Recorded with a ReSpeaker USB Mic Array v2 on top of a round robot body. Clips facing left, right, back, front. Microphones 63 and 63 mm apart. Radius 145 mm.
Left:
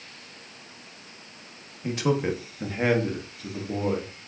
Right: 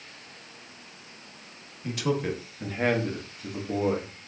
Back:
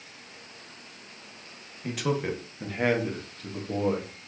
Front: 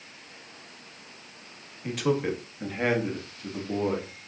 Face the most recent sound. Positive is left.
turn(degrees=-70)